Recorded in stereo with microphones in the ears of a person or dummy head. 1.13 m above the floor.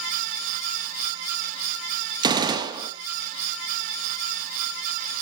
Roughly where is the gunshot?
Right.